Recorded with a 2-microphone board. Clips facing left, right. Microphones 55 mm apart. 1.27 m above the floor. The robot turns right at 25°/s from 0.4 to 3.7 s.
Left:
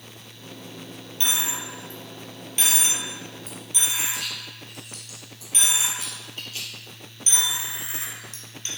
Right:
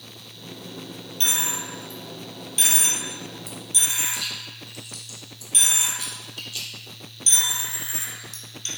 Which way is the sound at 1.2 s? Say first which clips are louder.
Even; 20° left (ahead or behind).